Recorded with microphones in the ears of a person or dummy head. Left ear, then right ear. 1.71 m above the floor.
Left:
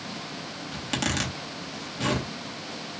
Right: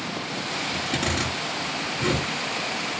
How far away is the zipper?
About 1.4 m.